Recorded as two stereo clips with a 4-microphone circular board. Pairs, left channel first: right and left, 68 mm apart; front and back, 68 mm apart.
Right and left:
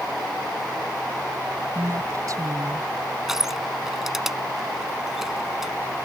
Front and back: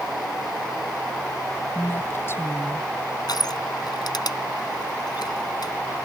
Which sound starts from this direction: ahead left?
A woman speaking, at 1.8 s.